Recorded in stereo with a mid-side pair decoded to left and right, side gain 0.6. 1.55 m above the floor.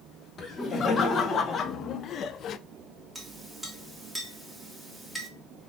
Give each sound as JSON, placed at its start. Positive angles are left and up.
{"t": 0.4, "sound": "laughter", "azimuth_deg": 40, "distance_m": 1.7}
{"t": 3.1, "sound": "a clink", "azimuth_deg": -5, "distance_m": 1.9}